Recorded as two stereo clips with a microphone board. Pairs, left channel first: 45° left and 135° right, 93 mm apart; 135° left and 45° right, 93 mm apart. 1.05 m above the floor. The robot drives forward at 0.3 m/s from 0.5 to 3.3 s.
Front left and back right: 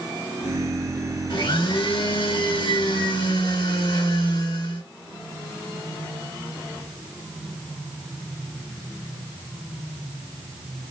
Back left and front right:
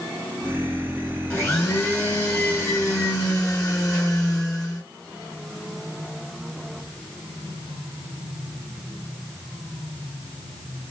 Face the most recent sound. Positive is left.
turn(degrees=80)